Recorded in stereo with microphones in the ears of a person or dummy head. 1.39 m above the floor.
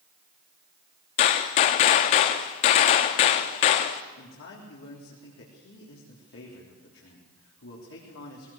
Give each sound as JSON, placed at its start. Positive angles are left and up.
{"t": 1.2, "sound": "a gunshot", "side_deg": 35, "distance_m": 1.0}
{"t": 4.2, "sound": "a man speaking", "side_deg": 65, "distance_m": 3.5}